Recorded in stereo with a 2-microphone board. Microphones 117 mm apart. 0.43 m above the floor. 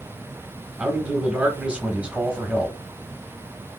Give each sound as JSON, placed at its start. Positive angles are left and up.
{"t": 0.8, "sound": "a man speaking", "side_deg": -10, "distance_m": 0.8}